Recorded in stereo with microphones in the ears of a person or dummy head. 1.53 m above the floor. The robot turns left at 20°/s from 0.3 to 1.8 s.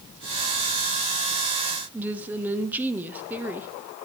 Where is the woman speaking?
10° right (ahead or behind), 0.6 m.